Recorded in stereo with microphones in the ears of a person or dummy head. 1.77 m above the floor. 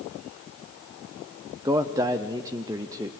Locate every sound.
1.6 s a man speaking: 15° right (ahead or behind), 0.5 m